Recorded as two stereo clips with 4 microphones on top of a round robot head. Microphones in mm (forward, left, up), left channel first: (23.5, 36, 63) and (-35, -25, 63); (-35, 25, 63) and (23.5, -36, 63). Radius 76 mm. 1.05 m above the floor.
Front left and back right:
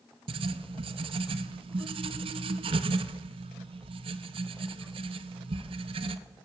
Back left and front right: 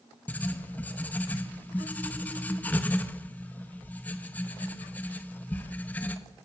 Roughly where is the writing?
Behind right.